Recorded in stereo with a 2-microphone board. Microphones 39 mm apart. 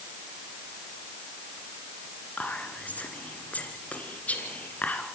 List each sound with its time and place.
2.4 s whispering: 40° left (ahead or behind), 2.5 m